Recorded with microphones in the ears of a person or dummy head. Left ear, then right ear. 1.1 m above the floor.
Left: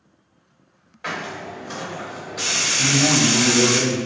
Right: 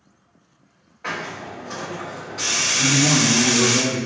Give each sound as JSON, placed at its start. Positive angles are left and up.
{"t": 1.0, "sound": "a hiss", "side_deg": 45, "distance_m": 1.1}
{"t": 2.8, "sound": "a man speaking", "side_deg": 40, "distance_m": 0.8}